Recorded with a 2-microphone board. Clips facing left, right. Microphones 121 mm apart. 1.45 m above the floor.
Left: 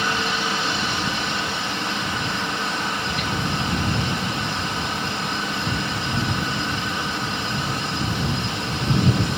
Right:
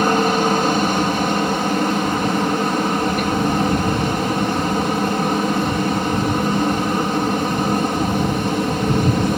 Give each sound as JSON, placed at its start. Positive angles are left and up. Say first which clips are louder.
{"t": 0.0, "sound": "a helicopter", "louder": "right 9 dB", "side_deg": -50}